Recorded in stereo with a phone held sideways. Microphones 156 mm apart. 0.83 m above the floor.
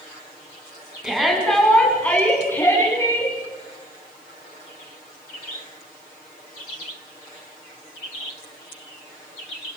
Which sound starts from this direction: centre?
A shout, at 1.0 s.